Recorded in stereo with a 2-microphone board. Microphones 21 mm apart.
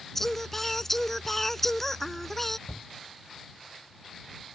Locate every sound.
0.1 s singing: 15° left (ahead or behind)
2.7 s a shout: 60° left (ahead or behind)